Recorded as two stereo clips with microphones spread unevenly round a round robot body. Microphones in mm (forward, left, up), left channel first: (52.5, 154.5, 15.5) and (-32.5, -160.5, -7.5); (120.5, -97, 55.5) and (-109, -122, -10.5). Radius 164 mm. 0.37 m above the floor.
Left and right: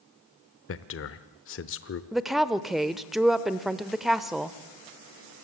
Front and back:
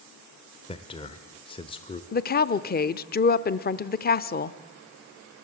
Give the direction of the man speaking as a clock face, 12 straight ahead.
9 o'clock.